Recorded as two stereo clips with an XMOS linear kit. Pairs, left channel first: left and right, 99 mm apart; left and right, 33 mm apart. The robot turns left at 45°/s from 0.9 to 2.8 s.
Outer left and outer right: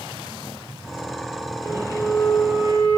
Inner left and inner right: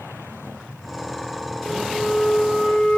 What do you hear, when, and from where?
1.6 s a flute: 140° left, 3.5 m; by 3.0 s 90° left, 3.5 m